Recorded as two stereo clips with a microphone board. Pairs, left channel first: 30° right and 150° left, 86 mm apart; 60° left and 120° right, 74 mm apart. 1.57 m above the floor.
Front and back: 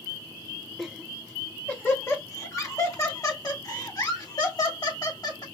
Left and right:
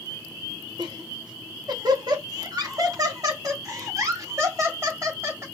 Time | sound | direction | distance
0.8 | laughter | 115° right | 1.5 m